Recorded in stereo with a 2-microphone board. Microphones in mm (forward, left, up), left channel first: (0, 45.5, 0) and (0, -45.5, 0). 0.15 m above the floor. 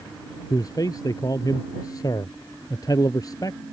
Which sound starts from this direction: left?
A man speaking, at 0.5 s.